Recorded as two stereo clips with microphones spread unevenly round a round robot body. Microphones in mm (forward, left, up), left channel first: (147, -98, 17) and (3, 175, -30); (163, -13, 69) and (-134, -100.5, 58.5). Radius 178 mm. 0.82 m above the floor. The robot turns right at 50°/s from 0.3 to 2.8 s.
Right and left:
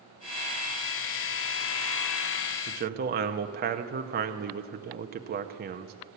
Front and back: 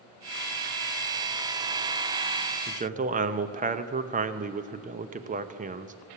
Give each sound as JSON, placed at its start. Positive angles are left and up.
{"t": 2.7, "sound": "a man speaking", "azimuth_deg": 140, "distance_m": 0.6}